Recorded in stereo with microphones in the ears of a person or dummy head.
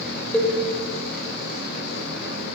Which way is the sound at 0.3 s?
5° left (ahead or behind).